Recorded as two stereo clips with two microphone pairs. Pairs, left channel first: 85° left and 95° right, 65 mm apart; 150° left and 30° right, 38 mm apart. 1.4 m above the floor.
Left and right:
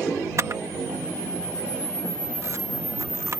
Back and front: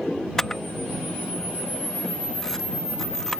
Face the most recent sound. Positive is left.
turn(degrees=-130)